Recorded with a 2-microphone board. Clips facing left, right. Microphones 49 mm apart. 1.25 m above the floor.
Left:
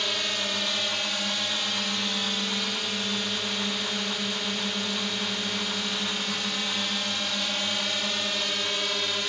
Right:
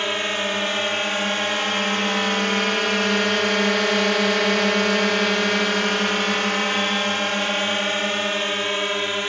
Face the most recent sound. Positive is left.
turn(degrees=-35)  # may be behind; listen again after turning